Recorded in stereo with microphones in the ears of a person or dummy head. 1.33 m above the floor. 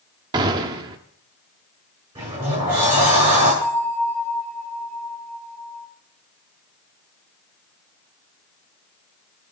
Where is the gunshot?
25° right (ahead or behind), 1.0 m.